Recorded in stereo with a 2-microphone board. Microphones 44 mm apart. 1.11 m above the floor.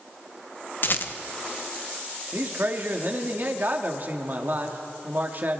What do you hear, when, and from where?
0.8 s a rattle: 50° left (ahead or behind), 0.9 m
2.3 s a man speaking: 45° right (ahead or behind), 1.8 m